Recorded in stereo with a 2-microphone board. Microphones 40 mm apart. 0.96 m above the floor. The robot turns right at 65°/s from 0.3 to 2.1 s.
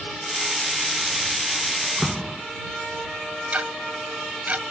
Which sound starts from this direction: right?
Ticking, at 3.5 s.